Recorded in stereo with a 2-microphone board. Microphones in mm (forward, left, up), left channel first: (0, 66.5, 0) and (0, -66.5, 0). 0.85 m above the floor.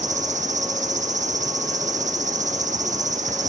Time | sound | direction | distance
0.0 | an insect | 65° right (ahead or behind) | 0.9 m